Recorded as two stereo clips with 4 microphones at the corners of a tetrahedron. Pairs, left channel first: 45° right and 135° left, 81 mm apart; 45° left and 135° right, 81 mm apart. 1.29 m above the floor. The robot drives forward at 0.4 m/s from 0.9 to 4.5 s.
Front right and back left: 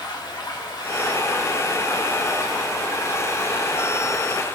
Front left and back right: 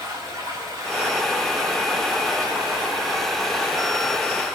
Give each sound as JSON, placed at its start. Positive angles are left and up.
{"t": 0.0, "sound": "running water", "azimuth_deg": -85, "distance_m": 3.5}